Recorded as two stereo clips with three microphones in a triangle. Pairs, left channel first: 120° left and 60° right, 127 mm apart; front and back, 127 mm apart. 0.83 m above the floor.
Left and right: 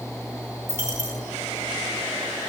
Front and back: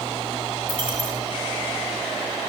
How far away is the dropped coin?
About 7.5 m.